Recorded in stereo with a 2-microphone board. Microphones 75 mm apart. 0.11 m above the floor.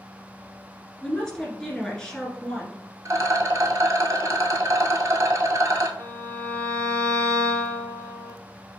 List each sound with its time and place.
1.0 s a woman speaking: 10° left (ahead or behind), 1.4 m
3.0 s a rattle: 50° right (ahead or behind), 0.7 m
6.0 s a violin: 45° right (ahead or behind), 1.0 m